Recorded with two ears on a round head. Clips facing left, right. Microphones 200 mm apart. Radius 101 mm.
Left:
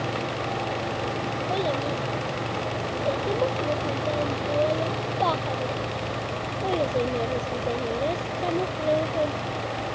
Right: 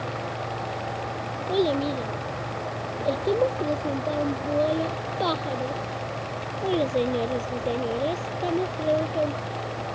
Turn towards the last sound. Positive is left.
turn(degrees=-5)  # may be behind; listen again after turning